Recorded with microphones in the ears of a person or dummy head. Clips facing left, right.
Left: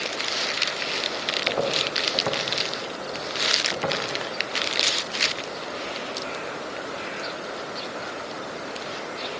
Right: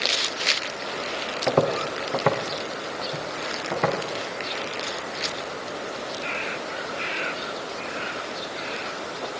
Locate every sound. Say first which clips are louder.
1.5 s footsteps: right 5 dB; 65° right (ahead or behind), 4 m; by 4.0 s 55° right (ahead or behind), 6 m